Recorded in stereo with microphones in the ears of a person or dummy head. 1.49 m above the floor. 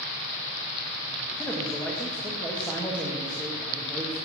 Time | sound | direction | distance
1.4 | a man speaking | 10° left (ahead or behind) | 1.7 m